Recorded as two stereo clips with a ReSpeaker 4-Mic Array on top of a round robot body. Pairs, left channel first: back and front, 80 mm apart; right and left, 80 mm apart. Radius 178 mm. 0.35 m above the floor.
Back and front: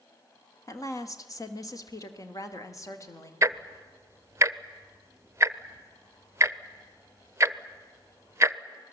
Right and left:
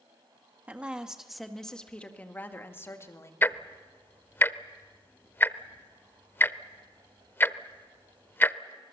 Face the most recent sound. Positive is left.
turn(degrees=-40)